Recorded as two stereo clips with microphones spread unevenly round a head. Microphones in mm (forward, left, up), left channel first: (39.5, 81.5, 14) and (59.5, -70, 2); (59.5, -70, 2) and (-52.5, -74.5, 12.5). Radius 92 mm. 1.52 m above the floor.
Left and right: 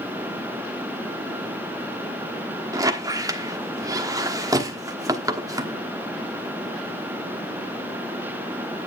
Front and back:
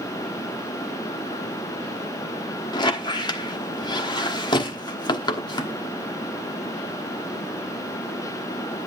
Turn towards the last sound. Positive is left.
turn(degrees=-25)